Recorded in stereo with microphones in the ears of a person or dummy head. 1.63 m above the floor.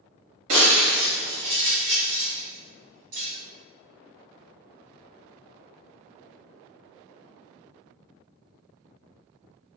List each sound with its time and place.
0.5 s breaking glass: 35° right (ahead or behind), 1.2 m